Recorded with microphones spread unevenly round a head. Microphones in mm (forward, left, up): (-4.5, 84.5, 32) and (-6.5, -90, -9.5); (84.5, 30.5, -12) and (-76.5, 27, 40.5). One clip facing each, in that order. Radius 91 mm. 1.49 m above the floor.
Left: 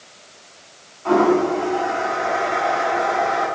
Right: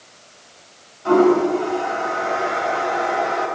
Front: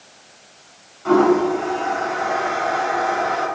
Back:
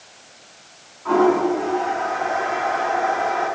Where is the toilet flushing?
15° right, 5 m.